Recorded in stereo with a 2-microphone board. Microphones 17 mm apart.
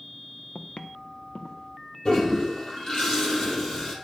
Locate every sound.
0.6 s footsteps: 85° left, 0.9 m; by 1.9 s 60° left (ahead or behind), 2.5 m
2.0 s a toilet flushing: 45° left (ahead or behind), 2.5 m